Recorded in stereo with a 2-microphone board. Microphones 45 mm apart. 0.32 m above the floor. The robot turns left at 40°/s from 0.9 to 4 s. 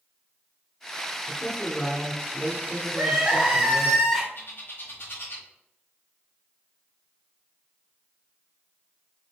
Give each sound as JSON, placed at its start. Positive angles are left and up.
{"t": 1.3, "sound": "a man speaking", "side_deg": 30, "distance_m": 1.0}
{"t": 2.9, "sound": "crying", "azimuth_deg": -145, "distance_m": 1.3}
{"t": 4.3, "sound": "a bird", "side_deg": 55, "distance_m": 1.1}